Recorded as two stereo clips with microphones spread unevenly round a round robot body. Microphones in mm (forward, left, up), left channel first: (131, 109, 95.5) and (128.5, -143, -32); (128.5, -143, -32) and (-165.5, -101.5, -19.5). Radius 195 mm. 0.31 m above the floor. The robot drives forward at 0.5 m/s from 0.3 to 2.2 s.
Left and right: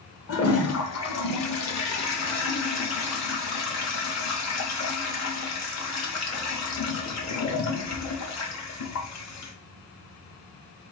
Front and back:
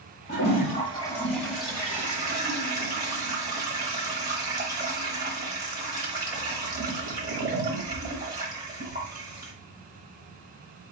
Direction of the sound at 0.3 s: 35° left.